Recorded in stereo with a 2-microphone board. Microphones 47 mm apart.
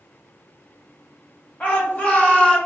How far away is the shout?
About 1.1 m.